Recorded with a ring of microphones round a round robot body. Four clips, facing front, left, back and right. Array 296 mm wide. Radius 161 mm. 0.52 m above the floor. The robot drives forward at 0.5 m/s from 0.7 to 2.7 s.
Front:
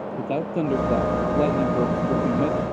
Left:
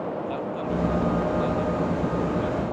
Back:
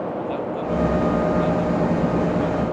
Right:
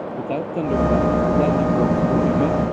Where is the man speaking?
45° right; by 2.6 s 50° right.